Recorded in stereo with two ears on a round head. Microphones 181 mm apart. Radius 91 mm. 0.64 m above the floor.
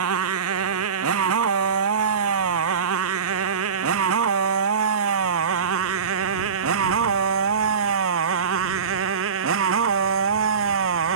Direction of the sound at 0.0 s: 85° right.